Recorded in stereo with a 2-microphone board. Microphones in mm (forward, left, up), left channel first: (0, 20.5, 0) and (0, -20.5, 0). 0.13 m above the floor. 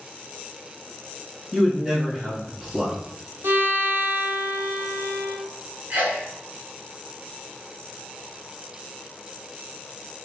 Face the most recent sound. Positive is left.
turn(degrees=-45)  # may be behind; listen again after turning